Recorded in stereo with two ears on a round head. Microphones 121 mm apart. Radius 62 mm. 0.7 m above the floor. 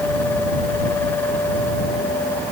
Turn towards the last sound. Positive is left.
No sound to turn to.